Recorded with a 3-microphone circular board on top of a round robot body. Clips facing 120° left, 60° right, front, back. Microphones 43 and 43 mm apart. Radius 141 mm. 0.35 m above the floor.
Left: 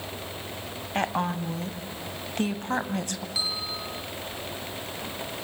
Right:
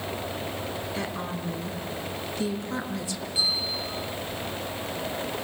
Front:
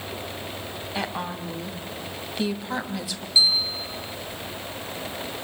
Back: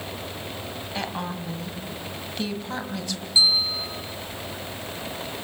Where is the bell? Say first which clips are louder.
Right 5 dB, back 1 dB; 105° left, 7.5 m.